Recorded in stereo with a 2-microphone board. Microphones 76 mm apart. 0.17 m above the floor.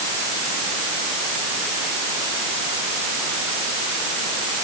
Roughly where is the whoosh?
No whoosh in this recording.